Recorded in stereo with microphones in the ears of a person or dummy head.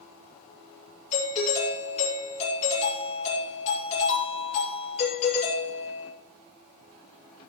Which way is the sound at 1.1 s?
45° left (ahead or behind).